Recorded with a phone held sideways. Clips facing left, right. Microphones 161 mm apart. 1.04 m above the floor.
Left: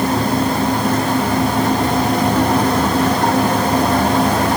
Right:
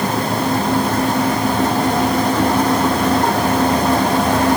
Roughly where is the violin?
I don't hear a violin.